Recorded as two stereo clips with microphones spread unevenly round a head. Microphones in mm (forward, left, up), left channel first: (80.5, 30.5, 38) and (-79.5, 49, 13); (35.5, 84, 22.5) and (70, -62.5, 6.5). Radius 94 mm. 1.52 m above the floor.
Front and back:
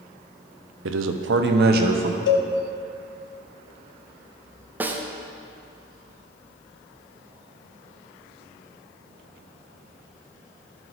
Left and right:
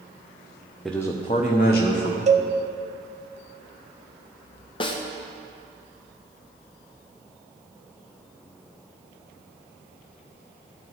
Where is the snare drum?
90° left, 0.6 m.